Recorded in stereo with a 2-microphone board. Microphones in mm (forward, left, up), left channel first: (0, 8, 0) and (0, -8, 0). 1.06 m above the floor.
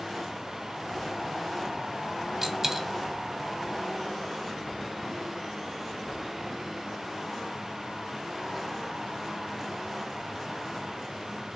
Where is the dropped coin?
30° right (ahead or behind), 1.0 m.